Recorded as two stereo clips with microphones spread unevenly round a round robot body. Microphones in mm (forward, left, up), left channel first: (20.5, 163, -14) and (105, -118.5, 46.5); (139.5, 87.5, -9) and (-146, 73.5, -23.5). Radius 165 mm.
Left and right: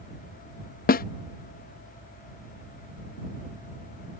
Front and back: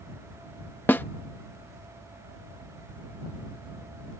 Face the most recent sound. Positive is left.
turn(degrees=85)